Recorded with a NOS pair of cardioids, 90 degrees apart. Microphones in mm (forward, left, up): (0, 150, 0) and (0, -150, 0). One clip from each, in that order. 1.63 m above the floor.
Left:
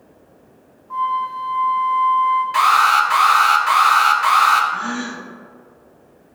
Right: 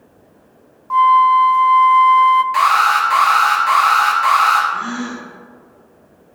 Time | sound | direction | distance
0.9 | a flute | 55° right | 0.6 m
2.5 | an alarm | 5° left | 3 m
4.7 | a gasp | 10° left | 2.5 m